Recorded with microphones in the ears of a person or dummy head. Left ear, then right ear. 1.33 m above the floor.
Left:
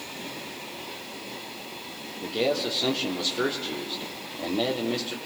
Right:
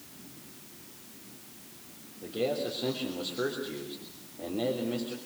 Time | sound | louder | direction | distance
2.2 | a man speaking | left 5 dB | 75° left (ahead or behind) | 3 m